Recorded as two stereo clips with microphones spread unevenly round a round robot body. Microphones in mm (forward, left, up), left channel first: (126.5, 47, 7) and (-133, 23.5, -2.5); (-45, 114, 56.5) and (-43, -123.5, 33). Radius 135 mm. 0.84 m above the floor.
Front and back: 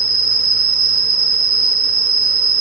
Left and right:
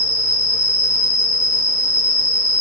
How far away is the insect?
About 2.5 m.